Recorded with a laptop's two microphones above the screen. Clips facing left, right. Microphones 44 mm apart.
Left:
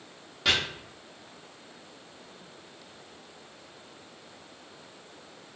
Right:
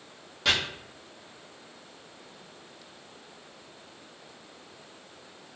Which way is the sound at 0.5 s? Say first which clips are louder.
Even; 5° left (ahead or behind).